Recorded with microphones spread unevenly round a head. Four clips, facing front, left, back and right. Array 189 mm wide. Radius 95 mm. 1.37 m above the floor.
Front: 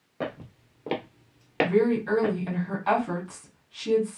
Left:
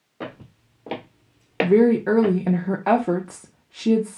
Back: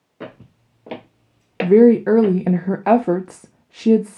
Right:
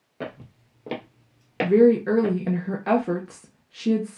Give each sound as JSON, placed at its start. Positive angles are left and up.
{"t": 0.2, "sound": "footsteps", "azimuth_deg": -20, "distance_m": 1.6}
{"t": 1.6, "sound": "a woman speaking", "azimuth_deg": 165, "distance_m": 0.5}